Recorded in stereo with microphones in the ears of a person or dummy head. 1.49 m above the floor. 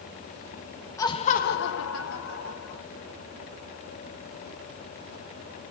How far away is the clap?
No clap in this recording.